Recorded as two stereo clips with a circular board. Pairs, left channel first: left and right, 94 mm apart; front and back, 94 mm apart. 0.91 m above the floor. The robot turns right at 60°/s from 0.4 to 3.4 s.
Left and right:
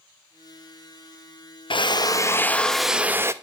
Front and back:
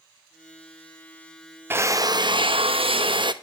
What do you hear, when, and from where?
1.7 s a drill: 115° left, 0.5 m; by 3.3 s 145° right, 0.5 m